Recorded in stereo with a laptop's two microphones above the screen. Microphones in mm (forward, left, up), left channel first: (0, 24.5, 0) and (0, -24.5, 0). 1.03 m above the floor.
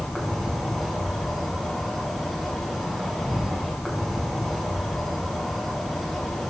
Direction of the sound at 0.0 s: Centre (ahead or behind).